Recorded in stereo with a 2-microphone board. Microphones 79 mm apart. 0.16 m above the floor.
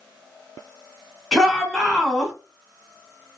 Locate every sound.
1.3 s a shout: 5° left (ahead or behind), 1.4 m